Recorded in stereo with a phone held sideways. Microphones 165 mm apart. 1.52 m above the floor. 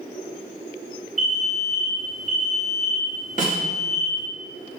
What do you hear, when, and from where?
1.2 s an alarm: centre (ahead or behind), 4 m
3.4 s a snare drum: 60° left (ahead or behind), 2.5 m